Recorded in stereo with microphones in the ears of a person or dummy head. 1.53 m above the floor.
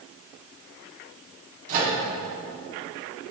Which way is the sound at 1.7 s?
45° right (ahead or behind).